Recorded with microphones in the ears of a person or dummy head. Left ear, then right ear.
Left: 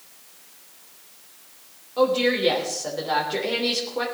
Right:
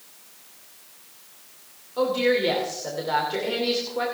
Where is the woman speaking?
5° left (ahead or behind), 3 m.